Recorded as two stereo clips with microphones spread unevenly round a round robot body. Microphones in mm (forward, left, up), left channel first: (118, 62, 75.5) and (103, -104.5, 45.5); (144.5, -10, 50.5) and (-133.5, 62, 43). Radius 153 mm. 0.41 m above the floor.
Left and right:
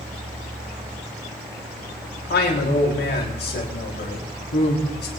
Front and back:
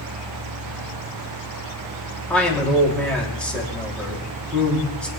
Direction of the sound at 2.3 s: 70° left.